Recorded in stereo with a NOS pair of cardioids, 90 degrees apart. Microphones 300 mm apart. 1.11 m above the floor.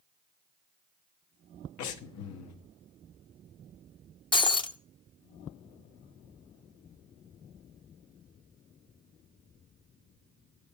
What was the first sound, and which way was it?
Breathing, 70° left.